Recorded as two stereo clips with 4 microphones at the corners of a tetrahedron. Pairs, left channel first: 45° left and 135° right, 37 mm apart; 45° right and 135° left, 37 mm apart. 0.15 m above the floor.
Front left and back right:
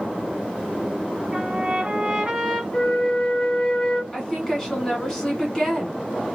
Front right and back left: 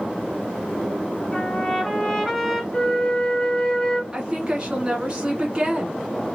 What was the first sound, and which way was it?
A trumpet, 120° right.